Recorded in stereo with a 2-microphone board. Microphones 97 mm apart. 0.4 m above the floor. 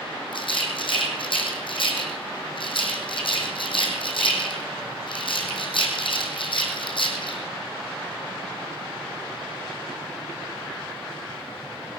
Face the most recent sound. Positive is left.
turn(degrees=60)  # may be behind; listen again after turning